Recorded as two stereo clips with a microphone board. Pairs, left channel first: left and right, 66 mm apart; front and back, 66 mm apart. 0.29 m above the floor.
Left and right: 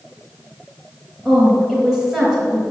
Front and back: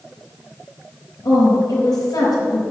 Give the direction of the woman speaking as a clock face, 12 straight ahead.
12 o'clock.